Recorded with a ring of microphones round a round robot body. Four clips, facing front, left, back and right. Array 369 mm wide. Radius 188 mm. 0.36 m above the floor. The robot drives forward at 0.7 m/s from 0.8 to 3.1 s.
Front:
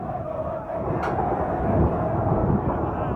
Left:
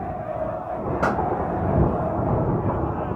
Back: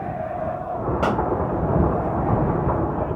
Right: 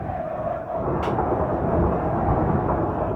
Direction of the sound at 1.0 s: 140° left.